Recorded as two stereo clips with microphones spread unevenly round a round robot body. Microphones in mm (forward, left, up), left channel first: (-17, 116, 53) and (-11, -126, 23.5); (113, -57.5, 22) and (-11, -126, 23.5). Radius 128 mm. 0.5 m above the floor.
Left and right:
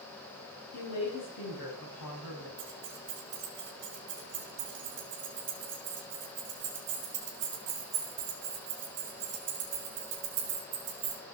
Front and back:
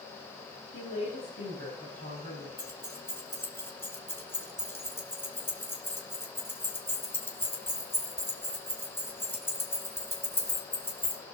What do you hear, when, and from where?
0.7 s a woman speaking: 85° left, 5 m
2.6 s keys jangling: 45° right, 3 m